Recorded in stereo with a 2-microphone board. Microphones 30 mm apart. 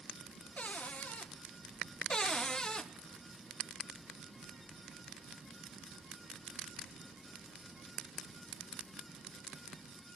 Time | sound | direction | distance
0.6 | a cupboard door | 55° left (ahead or behind) | 0.8 m
2.1 | a cupboard door | 25° left (ahead or behind) | 0.7 m